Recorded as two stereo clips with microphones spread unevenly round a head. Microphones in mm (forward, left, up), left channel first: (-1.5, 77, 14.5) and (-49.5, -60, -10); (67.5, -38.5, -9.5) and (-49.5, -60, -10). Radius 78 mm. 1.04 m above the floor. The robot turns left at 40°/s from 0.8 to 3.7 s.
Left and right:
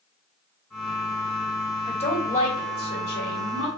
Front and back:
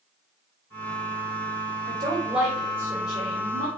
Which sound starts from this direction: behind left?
A woman speaking, at 1.9 s.